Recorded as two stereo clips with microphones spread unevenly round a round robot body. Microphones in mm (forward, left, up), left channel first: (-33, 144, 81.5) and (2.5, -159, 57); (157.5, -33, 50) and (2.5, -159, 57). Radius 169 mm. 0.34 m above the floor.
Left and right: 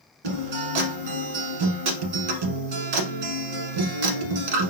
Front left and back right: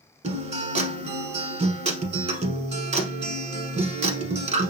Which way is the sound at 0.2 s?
80° right.